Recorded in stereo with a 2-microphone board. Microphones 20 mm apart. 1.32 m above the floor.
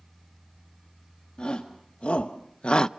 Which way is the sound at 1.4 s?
50° left (ahead or behind).